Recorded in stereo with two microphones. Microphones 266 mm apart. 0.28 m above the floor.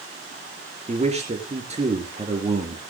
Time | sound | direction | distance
0.9 | a man speaking | 25° right (ahead or behind) | 4 m